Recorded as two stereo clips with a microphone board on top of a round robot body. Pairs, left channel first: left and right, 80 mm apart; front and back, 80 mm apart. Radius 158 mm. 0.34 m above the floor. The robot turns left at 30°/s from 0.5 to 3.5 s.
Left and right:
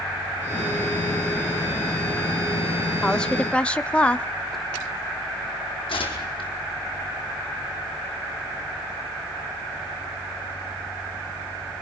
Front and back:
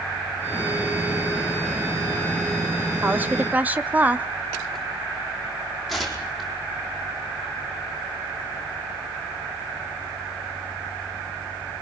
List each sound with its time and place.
3.0 s a woman speaking: 160° left, 1.3 m; by 4.3 s 145° left, 1.3 m
5.9 s tearing paper: 90° left, 4 m